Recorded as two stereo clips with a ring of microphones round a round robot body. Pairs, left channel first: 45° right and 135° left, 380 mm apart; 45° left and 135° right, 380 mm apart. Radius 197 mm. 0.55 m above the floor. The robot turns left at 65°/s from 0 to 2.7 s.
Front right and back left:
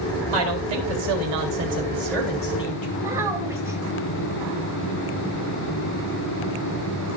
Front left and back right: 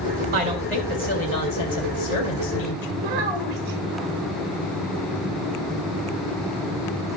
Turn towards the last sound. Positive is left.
turn(degrees=-140)